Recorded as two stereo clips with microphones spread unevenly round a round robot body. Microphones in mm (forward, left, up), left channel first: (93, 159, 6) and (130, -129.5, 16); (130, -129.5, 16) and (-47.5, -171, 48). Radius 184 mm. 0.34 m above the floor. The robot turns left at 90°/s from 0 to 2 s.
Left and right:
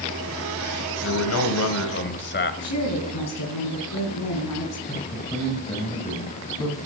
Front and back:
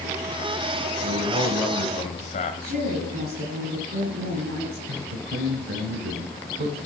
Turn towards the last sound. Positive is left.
turn(degrees=175)